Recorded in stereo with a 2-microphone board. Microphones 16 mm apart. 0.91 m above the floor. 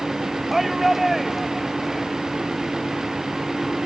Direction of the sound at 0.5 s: 10° right (ahead or behind).